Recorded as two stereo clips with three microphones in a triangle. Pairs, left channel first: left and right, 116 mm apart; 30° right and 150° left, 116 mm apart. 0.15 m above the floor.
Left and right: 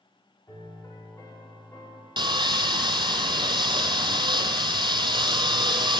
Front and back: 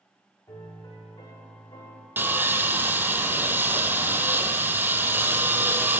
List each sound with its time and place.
0.5 s a piano: 25° left, 5 m
2.2 s sawing: 135° right, 0.7 m